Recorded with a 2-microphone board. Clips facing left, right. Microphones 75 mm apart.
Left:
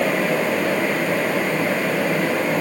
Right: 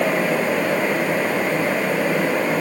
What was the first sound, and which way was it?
Only background noise.